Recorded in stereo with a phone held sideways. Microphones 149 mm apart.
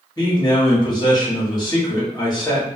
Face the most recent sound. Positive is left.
turn(degrees=30)  # may be behind; listen again after turning